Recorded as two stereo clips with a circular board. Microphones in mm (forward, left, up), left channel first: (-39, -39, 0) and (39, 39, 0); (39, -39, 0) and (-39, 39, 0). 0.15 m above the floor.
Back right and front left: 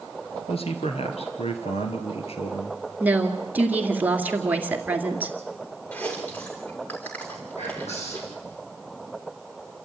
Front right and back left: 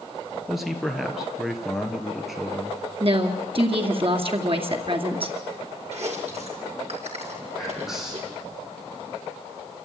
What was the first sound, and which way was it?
A man speaking, 140° right.